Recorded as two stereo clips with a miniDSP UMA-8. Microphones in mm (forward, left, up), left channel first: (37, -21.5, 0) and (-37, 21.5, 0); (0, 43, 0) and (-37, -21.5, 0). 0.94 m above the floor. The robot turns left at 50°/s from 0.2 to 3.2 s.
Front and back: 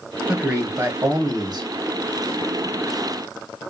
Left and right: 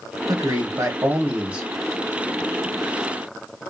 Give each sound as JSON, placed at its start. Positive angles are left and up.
{"t": 0.3, "sound": "a man speaking", "azimuth_deg": -130, "distance_m": 1.0}